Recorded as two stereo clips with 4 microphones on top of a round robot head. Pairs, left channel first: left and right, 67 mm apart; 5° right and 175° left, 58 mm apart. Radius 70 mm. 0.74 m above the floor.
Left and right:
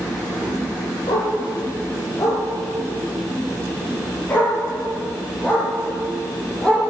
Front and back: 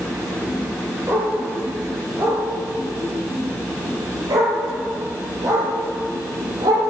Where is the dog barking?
120° left, 5 m; by 6.8 s 165° left, 6.5 m.